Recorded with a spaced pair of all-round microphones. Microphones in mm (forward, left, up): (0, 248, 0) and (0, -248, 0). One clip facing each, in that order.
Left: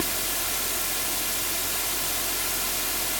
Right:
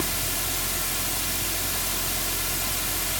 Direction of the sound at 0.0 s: 40° right (ahead or behind).